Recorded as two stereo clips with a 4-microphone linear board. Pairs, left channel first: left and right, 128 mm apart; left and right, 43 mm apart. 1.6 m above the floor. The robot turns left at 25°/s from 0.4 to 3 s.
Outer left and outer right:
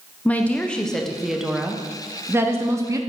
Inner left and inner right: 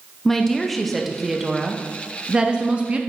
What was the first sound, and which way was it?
A woman speaking, 20° left.